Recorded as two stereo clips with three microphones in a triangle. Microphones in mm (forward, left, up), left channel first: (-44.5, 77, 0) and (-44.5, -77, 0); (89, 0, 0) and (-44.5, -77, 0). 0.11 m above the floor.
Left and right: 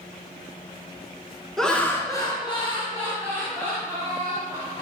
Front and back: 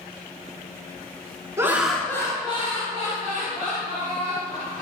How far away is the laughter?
About 1.3 m.